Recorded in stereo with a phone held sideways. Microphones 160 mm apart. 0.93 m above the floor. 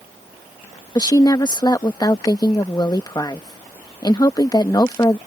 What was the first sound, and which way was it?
A woman speaking, 25° left (ahead or behind).